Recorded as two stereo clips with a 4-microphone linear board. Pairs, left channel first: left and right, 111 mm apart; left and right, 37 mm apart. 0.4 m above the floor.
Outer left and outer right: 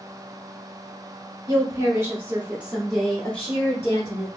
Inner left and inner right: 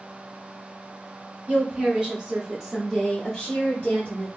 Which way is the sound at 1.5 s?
30° right (ahead or behind).